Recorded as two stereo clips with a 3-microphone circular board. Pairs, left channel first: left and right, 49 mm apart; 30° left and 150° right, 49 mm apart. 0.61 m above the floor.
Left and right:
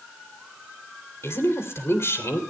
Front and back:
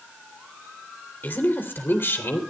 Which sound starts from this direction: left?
A woman speaking, at 1.2 s.